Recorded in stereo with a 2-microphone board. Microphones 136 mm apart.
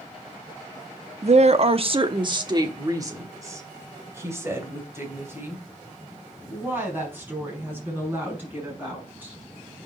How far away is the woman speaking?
About 0.7 m.